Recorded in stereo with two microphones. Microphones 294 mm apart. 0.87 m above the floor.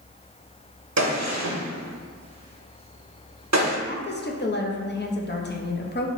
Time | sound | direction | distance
1.0 | a gunshot | 65° right (ahead or behind) | 0.7 m
3.9 | a woman speaking | 35° left (ahead or behind) | 0.5 m